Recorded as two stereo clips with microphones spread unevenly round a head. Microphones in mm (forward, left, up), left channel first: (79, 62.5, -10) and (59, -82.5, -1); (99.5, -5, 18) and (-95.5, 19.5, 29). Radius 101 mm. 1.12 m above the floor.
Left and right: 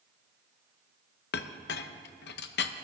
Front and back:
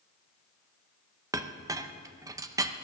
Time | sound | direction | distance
1.3 | a clink | 100° left | 0.7 m